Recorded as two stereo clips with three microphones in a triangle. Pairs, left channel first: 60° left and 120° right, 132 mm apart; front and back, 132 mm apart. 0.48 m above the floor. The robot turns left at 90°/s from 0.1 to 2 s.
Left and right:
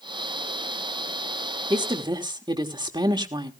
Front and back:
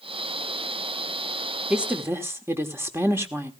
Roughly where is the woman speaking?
Right.